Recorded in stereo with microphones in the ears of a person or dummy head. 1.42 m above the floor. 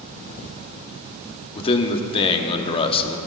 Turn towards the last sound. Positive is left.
turn(degrees=30)  # may be behind; listen again after turning